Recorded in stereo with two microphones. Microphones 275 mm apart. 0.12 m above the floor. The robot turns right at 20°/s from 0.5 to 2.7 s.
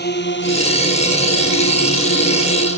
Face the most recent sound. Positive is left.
turn(degrees=50)  # may be behind; listen again after turning